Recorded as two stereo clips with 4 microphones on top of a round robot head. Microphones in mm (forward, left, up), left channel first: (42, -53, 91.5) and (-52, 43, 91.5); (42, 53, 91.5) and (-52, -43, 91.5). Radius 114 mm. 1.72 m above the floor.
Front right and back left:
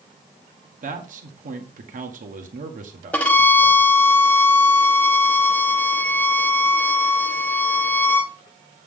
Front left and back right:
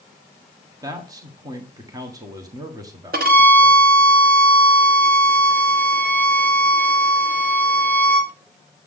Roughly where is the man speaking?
Behind.